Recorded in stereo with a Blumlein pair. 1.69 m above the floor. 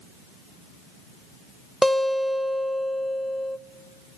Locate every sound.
1.8 s a guitar: 5° right, 0.8 m